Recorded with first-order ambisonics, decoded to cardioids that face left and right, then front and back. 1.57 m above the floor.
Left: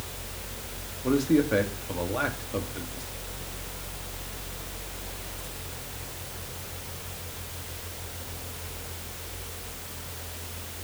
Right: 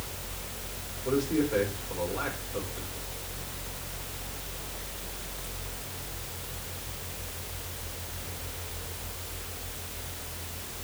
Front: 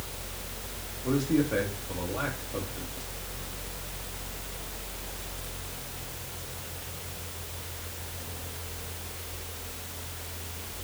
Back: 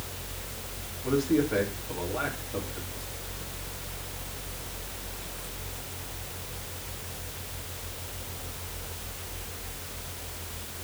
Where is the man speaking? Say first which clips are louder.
Left 4 dB, back 1 dB; 90° left, 3 m.